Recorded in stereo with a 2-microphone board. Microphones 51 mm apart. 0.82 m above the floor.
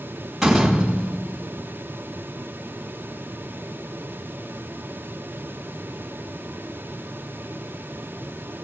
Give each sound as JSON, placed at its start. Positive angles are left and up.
{"t": 0.4, "sound": "a door slam", "side_deg": -5, "distance_m": 4.5}